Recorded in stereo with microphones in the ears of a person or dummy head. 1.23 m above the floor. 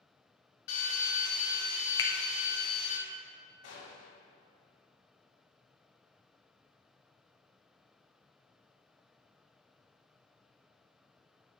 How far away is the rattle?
No rattle in this recording.